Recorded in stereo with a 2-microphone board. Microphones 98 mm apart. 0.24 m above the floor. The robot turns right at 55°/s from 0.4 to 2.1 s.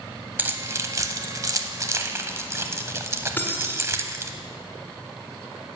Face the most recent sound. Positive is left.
turn(degrees=20)  # may be behind; listen again after turning